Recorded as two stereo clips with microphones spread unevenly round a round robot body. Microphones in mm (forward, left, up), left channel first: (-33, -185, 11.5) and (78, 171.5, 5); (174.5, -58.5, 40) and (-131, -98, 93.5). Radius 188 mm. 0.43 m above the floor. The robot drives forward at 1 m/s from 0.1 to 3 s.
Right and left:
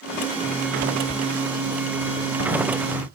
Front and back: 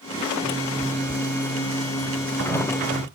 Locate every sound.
0.4 s a zipper: 150° left, 6.5 m; by 3.1 s 160° left, 8.5 m